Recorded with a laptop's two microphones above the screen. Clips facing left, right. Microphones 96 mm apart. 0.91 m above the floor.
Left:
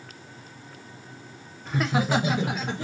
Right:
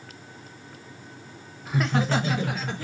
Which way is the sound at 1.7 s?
5° right (ahead or behind).